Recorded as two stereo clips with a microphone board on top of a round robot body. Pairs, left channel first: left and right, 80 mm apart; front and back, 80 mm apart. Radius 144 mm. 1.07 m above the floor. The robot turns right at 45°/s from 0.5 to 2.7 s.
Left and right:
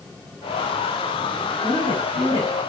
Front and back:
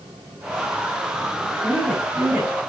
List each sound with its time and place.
1.6 s a woman speaking: 70° left, 2 m; by 2.6 s 110° left, 2 m